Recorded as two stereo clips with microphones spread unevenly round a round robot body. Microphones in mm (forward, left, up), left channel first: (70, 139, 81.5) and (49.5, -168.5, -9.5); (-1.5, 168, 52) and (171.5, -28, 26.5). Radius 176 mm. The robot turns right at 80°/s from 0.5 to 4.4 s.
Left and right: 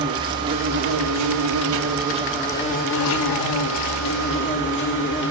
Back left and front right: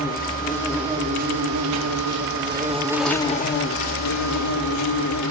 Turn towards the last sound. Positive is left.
turn(degrees=150)